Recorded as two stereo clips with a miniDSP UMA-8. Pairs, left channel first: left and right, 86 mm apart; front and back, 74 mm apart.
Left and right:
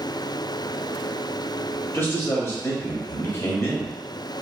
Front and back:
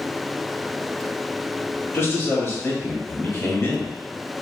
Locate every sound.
1.9 s a man speaking: 45° left, 1.2 m